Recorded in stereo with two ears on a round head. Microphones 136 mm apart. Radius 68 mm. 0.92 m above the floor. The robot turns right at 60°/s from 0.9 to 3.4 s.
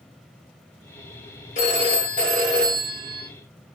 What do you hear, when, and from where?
1.6 s a phone ringing: 130° left, 1.4 m; by 3.3 s 125° right, 1.4 m